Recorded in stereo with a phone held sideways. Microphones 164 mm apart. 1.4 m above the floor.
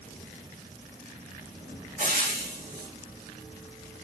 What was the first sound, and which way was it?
Frying, 55° right (ahead or behind).